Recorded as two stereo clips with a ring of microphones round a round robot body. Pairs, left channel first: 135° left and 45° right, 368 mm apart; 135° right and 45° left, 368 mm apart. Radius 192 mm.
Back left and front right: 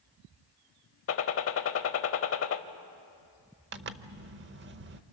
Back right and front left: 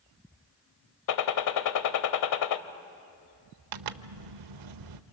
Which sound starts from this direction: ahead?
A zipper, at 3.7 s.